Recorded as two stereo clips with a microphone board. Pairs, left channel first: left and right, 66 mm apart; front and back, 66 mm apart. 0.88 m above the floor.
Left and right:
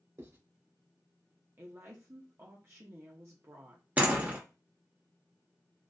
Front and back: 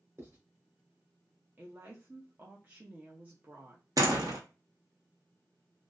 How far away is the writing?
About 1.7 m.